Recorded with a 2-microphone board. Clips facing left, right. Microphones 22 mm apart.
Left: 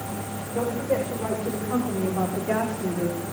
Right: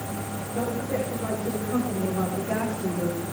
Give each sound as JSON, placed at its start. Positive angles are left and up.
{"t": 0.5, "sound": "a woman speaking", "side_deg": 80, "distance_m": 7.5}